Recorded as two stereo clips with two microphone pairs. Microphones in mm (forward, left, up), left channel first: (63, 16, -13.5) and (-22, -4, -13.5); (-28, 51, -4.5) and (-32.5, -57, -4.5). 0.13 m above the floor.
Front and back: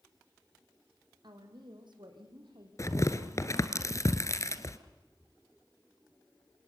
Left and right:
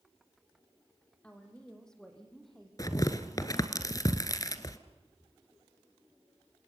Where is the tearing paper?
50° left, 1.4 m.